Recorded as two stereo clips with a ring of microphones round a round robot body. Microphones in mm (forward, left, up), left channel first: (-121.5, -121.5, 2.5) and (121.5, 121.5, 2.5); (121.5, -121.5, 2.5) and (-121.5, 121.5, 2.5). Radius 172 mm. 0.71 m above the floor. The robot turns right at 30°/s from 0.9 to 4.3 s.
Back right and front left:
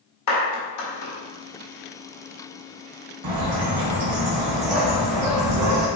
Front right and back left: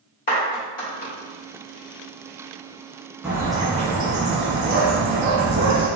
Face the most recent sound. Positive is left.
turn(degrees=80)